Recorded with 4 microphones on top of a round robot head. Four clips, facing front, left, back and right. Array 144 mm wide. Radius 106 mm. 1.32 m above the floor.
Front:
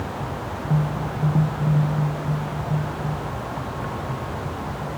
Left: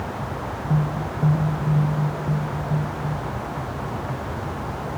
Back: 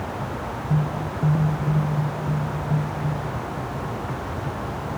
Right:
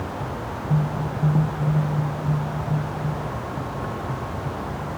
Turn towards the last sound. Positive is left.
No sound to turn to.